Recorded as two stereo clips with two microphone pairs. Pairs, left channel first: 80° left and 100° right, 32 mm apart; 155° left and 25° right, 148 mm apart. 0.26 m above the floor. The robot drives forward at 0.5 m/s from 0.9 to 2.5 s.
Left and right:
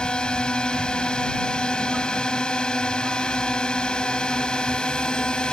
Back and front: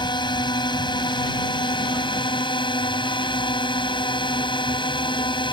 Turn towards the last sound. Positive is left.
turn(degrees=125)